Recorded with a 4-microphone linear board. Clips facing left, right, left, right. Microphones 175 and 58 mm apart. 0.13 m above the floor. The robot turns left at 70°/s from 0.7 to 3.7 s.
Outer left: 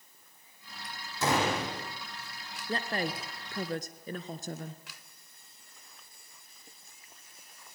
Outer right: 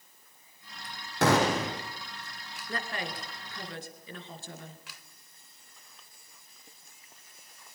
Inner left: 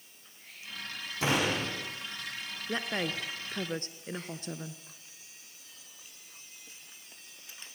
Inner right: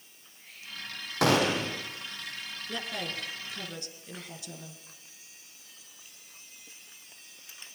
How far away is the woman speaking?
About 1.7 m.